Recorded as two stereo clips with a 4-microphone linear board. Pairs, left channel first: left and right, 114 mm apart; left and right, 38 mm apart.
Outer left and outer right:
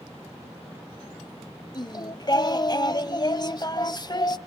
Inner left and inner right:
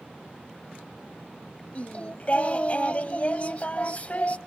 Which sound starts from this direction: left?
Singing, at 1.8 s.